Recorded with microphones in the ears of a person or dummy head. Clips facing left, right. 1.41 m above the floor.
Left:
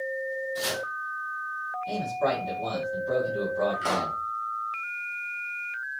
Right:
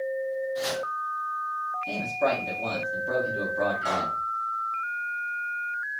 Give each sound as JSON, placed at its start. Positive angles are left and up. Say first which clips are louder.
{"t": 0.6, "sound": "chopping", "louder": "right 3 dB", "side_deg": 40, "distance_m": 2.5}
{"t": 1.9, "sound": "a man speaking", "louder": "right 1 dB", "side_deg": -10, "distance_m": 2.5}
{"t": 3.8, "sound": "a pop", "louder": "left 1 dB", "side_deg": 50, "distance_m": 1.2}